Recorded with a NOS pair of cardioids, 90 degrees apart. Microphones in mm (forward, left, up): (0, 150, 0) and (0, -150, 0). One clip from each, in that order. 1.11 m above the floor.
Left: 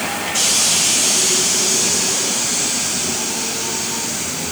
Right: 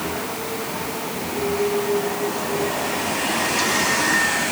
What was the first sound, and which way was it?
Only background noise.